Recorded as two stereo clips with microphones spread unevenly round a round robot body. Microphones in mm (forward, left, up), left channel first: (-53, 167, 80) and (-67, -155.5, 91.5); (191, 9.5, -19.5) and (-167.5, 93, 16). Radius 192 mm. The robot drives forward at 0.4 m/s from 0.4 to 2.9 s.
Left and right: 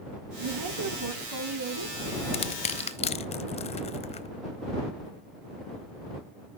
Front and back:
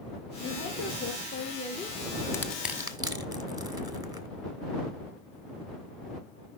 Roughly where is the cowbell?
I don't hear a cowbell.